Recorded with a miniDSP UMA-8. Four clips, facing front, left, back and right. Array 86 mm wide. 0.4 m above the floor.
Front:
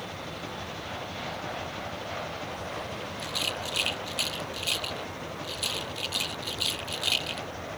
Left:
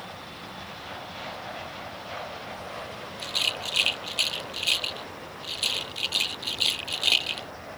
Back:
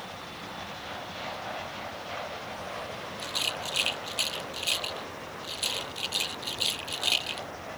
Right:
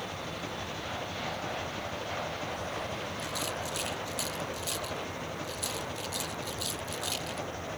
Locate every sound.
0.0 s an engine running: 55° right
3.2 s a rattle: 90° left